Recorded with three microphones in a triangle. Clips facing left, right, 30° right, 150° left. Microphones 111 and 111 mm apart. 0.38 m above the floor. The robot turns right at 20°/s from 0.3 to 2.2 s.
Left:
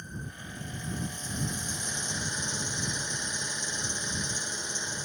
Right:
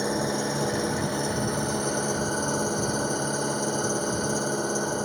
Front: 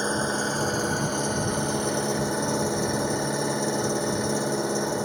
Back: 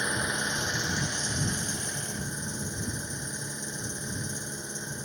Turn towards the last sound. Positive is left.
turn(degrees=-50)